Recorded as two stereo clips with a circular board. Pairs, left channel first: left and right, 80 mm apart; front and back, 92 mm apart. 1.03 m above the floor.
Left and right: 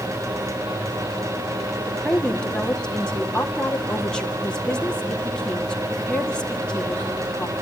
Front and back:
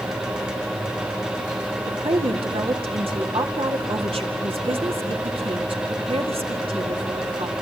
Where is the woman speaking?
170° left, 2.5 m.